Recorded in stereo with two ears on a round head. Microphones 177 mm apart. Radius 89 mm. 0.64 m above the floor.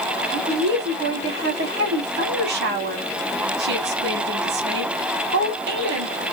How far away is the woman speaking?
About 1.6 m.